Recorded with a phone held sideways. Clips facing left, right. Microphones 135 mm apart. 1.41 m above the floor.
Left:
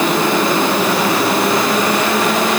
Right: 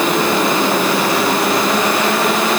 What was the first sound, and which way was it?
Only background noise.